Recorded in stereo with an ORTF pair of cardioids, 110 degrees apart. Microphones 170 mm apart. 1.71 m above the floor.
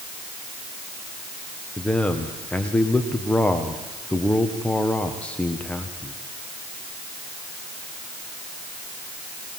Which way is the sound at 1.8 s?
5° left.